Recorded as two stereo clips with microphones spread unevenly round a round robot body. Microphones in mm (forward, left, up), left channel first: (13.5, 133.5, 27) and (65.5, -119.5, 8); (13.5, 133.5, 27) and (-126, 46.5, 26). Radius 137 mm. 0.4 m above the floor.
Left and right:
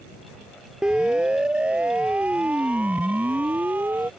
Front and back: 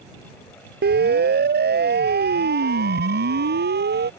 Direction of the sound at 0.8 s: 165° right.